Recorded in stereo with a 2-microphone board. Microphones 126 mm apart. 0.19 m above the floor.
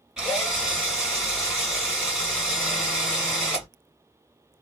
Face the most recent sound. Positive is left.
turn(degrees=-5)  # may be behind; listen again after turning